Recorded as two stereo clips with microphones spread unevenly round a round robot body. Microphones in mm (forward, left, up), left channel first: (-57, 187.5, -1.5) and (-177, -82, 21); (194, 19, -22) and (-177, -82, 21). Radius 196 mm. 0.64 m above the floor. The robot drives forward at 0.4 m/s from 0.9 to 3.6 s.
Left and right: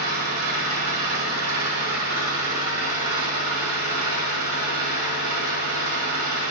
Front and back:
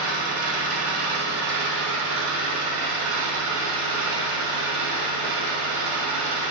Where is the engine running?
110° right, 1.6 m; by 6.5 s 135° right, 2 m.